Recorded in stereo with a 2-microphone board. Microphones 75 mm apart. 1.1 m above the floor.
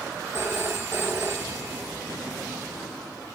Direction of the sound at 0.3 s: 30° right (ahead or behind).